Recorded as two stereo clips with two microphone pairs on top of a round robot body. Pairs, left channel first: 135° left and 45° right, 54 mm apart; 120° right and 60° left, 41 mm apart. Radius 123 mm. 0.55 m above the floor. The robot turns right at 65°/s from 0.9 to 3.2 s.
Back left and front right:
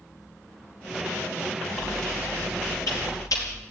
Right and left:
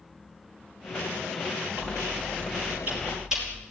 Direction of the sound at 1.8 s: 40° left.